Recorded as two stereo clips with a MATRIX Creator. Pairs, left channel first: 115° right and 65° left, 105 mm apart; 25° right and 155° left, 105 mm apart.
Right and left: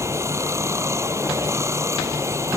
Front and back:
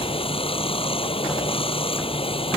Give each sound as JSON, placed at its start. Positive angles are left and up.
{"t": 0.0, "sound": "running water", "azimuth_deg": 5}